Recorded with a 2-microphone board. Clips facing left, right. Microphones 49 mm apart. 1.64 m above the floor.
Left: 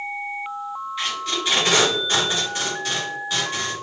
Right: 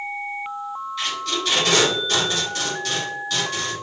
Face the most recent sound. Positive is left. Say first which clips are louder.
# even
turn(degrees=20)  # may be behind; listen again after turning